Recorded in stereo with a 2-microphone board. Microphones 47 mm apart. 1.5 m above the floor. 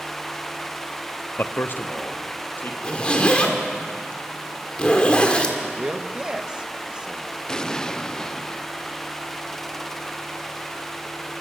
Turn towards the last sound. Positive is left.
turn(degrees=15)  # may be behind; listen again after turning